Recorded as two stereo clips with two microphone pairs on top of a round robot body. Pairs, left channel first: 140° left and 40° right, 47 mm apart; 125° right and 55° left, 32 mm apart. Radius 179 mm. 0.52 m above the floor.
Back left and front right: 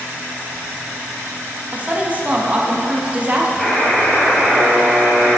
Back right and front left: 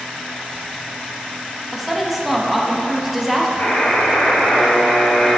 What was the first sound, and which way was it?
A woman speaking, 20° right.